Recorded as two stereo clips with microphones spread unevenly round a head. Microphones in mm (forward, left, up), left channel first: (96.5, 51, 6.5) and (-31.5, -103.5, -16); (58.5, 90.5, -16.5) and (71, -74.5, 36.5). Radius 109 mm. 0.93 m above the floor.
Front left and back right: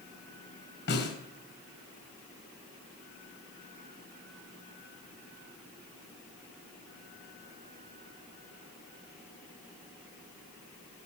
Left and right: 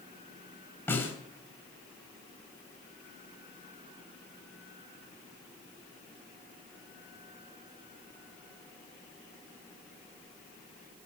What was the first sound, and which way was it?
A snare drum, 15° left.